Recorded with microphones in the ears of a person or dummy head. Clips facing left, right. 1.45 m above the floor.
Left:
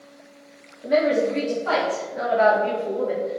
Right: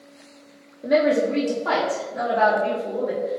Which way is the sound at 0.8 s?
50° right (ahead or behind).